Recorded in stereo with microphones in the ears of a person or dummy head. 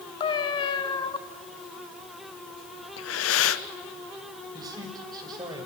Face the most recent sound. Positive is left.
turn(degrees=-20)  # may be behind; listen again after turning